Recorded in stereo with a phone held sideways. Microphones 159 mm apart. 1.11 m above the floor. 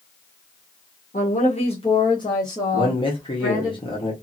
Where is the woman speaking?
55° left (ahead or behind), 0.8 m; by 3.7 s 15° left (ahead or behind), 2 m.